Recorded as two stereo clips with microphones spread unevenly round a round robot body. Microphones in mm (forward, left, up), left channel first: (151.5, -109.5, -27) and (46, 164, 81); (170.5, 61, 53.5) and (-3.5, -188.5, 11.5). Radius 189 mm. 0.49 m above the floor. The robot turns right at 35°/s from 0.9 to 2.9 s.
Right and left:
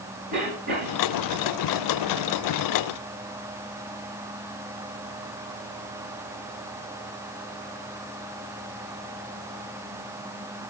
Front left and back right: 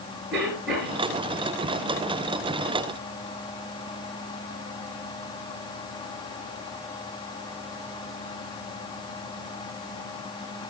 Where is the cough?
145° left, 5.5 m; by 1.0 s 150° left, 5.5 m.